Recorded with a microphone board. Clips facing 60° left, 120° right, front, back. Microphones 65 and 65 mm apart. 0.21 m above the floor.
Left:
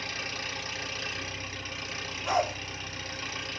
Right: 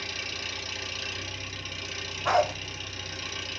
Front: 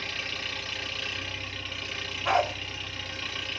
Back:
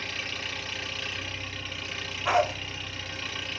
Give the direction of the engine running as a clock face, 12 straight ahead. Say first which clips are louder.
Left 1 dB, even; 9 o'clock.